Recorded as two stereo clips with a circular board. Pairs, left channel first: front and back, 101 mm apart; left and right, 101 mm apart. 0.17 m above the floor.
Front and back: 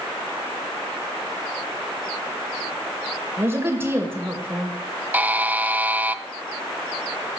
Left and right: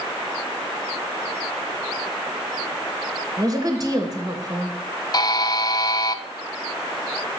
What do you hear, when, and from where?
3.4 s a woman speaking: 125° right, 2 m
5.1 s a buzzer: 115° left, 0.5 m